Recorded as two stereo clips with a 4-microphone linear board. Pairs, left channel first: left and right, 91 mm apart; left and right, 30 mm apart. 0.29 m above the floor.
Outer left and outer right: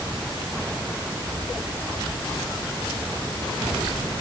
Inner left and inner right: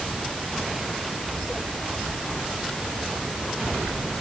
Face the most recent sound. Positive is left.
No sound to turn to.